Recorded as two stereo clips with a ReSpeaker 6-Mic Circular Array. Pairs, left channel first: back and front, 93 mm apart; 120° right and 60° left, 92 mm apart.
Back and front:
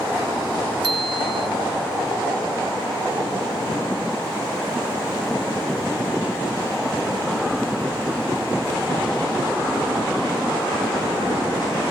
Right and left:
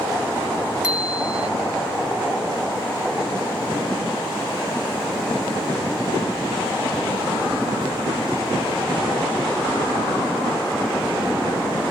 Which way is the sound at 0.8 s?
15° right.